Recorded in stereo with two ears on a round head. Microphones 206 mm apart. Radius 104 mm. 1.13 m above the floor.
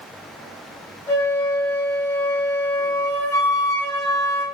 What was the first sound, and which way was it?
A flute, 15° left (ahead or behind).